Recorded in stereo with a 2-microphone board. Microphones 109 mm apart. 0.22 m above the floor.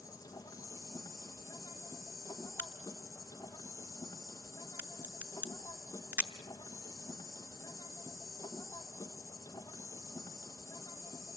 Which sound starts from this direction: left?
An insect, at 0.0 s.